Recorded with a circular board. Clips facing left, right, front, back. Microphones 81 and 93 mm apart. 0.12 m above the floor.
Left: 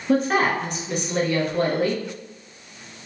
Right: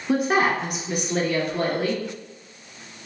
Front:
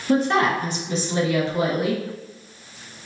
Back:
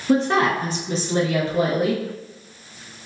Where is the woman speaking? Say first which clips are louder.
Left 1 dB, back 1 dB; 155° right, 1.2 m; by 2.0 s 175° right, 2 m.